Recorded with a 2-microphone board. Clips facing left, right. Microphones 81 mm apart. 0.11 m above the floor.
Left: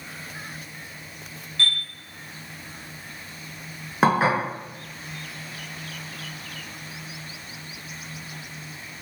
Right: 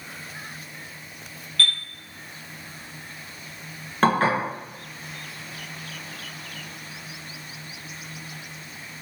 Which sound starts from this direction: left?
A chime, at 1.6 s.